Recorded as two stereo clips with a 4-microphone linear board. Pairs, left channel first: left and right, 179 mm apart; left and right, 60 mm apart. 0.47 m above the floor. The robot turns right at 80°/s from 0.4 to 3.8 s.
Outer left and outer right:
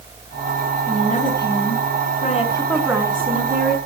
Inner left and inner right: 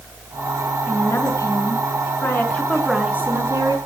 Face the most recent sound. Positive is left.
turn(degrees=-100)